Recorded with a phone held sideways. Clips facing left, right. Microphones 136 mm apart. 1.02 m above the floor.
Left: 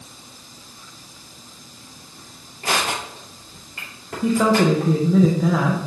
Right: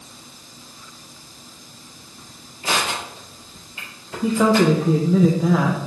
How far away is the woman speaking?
About 0.8 m.